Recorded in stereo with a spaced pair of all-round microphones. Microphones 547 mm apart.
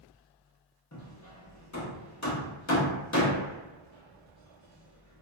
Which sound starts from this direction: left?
Hammering, at 0.9 s.